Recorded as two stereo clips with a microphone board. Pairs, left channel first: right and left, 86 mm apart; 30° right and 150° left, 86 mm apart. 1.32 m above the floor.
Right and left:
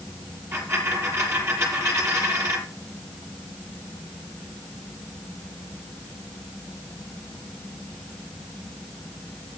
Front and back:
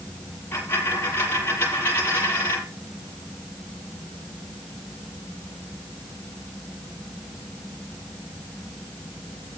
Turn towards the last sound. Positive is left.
turn(degrees=35)